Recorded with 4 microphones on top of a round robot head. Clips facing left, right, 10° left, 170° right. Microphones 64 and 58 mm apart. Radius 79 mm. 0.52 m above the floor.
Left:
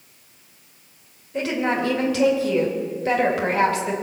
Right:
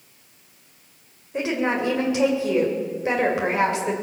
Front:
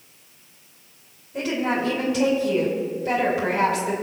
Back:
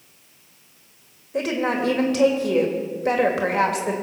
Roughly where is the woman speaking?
Behind.